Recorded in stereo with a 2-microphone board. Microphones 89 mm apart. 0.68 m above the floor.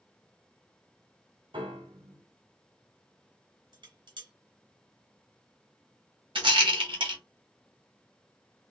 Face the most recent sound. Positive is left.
turn(degrees=-75)  # may be behind; listen again after turning